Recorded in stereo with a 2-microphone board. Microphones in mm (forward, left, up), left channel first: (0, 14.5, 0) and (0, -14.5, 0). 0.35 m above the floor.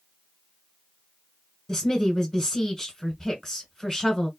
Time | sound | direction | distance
1.7 | a woman speaking | 5° left (ahead or behind) | 1.7 m